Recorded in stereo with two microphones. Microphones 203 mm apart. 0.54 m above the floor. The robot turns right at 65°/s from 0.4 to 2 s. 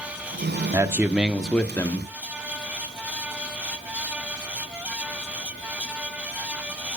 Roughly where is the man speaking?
Centre.